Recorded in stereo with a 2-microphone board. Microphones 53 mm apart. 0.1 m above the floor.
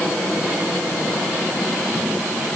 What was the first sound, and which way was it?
Only background noise.